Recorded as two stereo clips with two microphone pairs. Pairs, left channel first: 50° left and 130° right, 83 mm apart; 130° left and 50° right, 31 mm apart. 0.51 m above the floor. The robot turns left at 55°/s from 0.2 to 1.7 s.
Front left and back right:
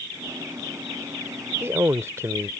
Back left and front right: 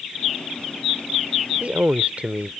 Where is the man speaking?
75° right; by 2.5 s 80° right.